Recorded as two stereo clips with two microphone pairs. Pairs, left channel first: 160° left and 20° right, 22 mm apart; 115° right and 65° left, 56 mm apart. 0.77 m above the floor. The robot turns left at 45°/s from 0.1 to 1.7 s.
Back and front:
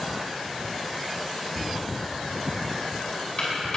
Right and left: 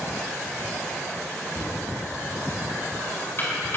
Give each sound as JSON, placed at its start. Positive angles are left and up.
{"t": 1.6, "sound": "knocking", "azimuth_deg": -155, "distance_m": 6.0}